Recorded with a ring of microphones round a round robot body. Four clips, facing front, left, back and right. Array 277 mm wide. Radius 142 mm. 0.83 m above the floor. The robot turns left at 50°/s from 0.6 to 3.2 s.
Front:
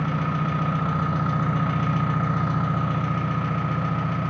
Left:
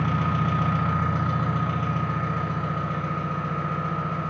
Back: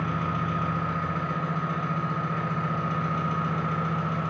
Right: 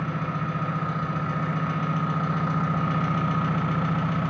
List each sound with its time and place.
0.0 s an engine running: 65° left, 1.8 m; by 4.3 s 65° right, 1.8 m